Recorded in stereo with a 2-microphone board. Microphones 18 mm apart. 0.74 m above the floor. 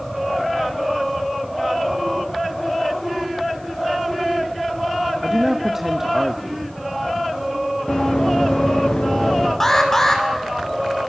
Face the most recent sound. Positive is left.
turn(degrees=20)  # may be behind; listen again after turning